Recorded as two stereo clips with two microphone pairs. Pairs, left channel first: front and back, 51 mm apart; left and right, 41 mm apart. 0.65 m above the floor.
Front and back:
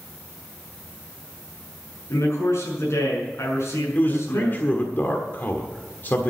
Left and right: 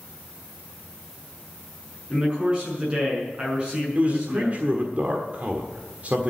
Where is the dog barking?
No dog barking in this recording.